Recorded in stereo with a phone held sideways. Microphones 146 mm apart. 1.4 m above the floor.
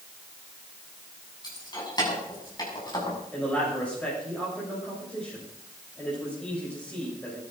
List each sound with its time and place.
1.4 s keys jangling: 30° left (ahead or behind), 7.5 m
3.3 s a man speaking: 10° left (ahead or behind), 7.5 m